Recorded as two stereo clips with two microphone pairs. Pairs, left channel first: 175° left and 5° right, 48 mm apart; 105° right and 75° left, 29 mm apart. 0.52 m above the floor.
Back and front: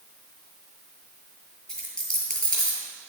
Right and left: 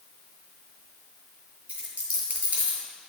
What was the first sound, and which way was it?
A dropped coin, 105° left.